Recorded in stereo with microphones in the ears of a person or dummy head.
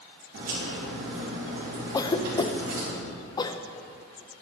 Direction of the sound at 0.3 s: 65° right (ahead or behind).